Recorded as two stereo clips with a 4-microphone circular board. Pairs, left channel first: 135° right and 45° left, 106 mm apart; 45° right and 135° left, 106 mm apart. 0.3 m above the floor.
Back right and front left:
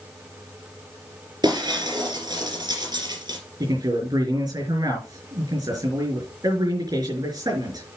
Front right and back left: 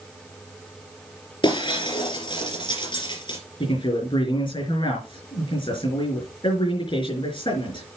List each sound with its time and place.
1.4 s breaking glass: 5° right, 3.5 m
3.6 s a man speaking: 10° right, 4.5 m